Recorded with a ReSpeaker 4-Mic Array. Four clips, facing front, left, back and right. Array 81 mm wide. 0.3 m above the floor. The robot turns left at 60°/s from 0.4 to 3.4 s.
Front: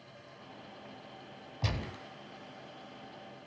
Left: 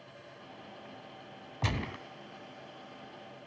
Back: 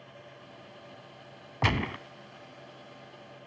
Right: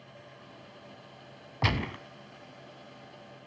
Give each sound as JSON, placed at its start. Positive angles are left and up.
{"t": 1.6, "sound": "a gunshot", "azimuth_deg": -155, "distance_m": 0.9}